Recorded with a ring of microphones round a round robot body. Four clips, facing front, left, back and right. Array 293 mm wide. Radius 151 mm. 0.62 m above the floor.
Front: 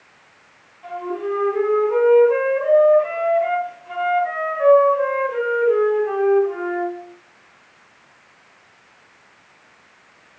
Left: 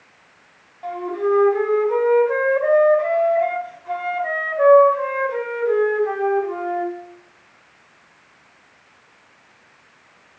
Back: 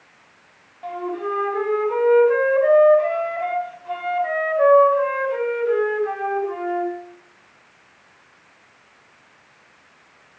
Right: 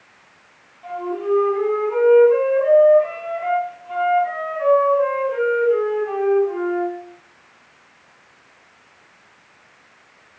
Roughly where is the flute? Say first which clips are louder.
Left 2 dB, front 1 dB; behind left.